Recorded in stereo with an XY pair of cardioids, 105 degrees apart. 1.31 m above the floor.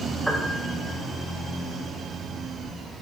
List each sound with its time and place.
0.3 s a piano: 5° right, 4 m